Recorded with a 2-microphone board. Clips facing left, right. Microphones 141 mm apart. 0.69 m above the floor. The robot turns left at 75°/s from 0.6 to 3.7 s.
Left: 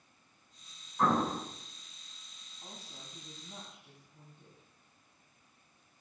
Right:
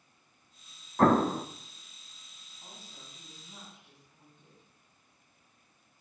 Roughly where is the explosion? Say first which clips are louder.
Right 6 dB; right.